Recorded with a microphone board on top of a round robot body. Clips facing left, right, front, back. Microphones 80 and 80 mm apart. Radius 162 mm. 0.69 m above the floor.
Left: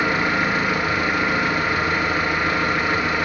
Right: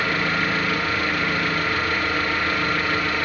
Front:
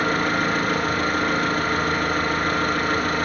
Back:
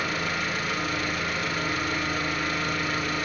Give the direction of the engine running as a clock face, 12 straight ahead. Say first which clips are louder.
Left 3 dB, front 8 dB; 11 o'clock.